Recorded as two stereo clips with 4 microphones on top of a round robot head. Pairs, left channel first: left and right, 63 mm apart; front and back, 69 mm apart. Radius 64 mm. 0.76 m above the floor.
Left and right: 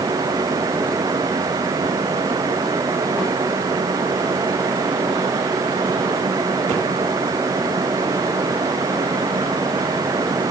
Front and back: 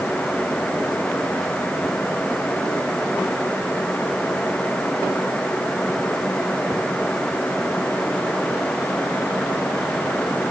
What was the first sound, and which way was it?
Only background noise.